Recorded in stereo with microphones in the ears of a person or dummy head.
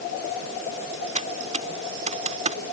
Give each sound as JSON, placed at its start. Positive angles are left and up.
{"t": 1.1, "sound": "typing on a keyboard", "side_deg": -45}